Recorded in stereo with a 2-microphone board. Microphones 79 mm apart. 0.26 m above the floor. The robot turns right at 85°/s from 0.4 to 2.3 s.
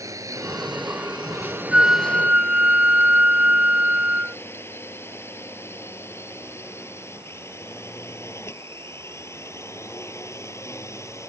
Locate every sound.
0.0 s a drone: 45° right (ahead or behind); by 11.3 s 35° left (ahead or behind)
1.7 s a flute: 10° right (ahead or behind); by 4.4 s 20° right (ahead or behind)